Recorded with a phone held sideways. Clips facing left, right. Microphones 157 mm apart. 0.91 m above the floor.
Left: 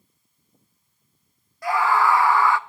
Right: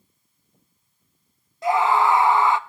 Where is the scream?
20° right (ahead or behind), 0.5 m.